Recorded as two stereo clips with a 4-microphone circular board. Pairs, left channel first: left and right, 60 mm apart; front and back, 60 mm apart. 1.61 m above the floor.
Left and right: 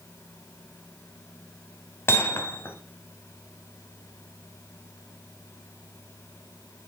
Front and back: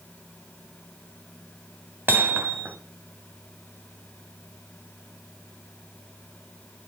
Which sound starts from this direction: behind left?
Hammering, at 2.1 s.